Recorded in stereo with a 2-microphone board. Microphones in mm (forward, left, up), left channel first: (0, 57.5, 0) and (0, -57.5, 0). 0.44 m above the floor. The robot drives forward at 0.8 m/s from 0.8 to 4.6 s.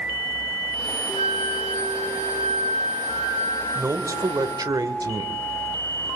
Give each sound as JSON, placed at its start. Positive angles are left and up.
{"t": 1.1, "sound": "a flute", "side_deg": 80, "distance_m": 6.0}
{"t": 3.8, "sound": "a man speaking", "side_deg": -25, "distance_m": 2.5}